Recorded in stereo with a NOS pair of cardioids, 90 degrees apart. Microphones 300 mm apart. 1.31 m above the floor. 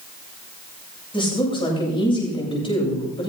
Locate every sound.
1.1 s a woman speaking: 15° left, 8 m